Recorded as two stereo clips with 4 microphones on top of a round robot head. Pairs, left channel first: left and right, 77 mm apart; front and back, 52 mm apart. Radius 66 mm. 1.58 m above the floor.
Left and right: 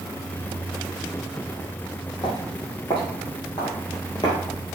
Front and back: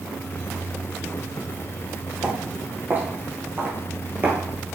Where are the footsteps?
130° left, 3.5 m; by 4.4 s 140° left, 2 m.